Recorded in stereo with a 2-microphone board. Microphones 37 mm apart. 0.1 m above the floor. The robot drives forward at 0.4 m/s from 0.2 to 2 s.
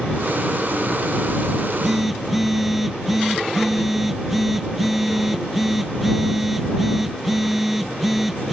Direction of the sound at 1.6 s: 10° right (ahead or behind).